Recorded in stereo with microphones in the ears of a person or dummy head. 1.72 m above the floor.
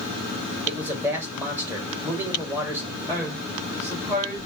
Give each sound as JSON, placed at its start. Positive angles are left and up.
{"t": 0.7, "sound": "a man speaking", "side_deg": -10, "distance_m": 1.7}
{"t": 3.1, "sound": "a woman speaking", "side_deg": -15, "distance_m": 1.9}